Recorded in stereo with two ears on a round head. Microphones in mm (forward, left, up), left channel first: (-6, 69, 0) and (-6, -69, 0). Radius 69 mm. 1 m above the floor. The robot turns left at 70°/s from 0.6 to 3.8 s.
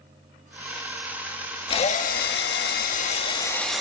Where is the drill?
145° left, 1.5 m; by 3.8 s 5° right, 1.5 m.